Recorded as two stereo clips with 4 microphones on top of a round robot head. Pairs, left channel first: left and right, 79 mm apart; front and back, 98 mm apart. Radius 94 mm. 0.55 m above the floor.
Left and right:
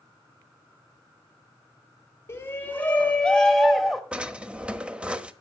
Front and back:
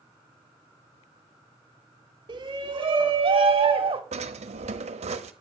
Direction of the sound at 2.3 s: 145° left.